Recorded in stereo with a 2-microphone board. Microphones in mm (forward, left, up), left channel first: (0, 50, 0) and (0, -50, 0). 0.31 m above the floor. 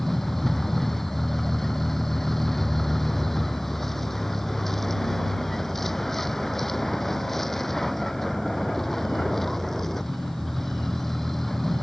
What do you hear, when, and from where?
0.0 s a vehicle: 5° left (ahead or behind)